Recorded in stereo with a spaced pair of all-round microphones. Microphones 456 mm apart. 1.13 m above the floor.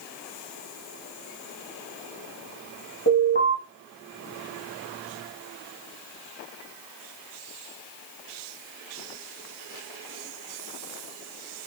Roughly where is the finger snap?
No finger snap in this recording.